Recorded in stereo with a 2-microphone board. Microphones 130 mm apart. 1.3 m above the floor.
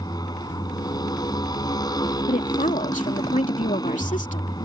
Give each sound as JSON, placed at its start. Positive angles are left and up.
{"t": 0.0, "sound": "a motorcycle", "side_deg": 30}
{"t": 2.3, "sound": "a woman speaking", "side_deg": 85}